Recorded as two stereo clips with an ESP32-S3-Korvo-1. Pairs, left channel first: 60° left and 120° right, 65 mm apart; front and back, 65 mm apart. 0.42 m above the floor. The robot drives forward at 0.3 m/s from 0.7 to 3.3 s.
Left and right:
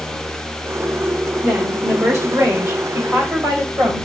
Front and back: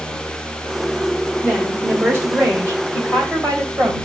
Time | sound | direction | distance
1.4 | a woman speaking | 130° right | 1.2 m